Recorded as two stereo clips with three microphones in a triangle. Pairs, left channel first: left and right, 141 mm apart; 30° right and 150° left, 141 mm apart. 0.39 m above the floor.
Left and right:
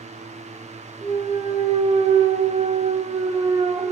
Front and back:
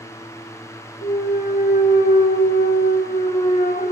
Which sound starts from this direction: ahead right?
A clunk, at 1.0 s.